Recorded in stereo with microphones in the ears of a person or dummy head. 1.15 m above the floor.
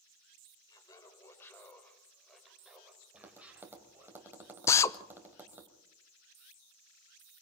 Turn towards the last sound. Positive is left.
turn(degrees=20)  # may be behind; listen again after turning